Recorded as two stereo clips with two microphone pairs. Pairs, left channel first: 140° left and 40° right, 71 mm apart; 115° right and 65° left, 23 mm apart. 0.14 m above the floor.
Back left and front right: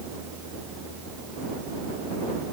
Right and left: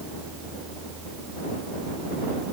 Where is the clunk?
No clunk in this recording.